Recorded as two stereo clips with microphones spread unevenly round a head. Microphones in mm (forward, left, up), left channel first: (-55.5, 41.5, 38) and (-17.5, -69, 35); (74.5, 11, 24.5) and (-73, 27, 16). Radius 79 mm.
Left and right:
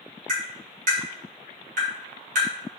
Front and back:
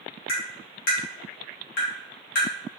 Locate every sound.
0.3 s tapping: 45° right, 2 m